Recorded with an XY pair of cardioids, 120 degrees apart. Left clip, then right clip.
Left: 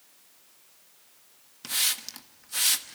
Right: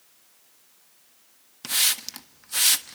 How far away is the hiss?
About 1.3 m.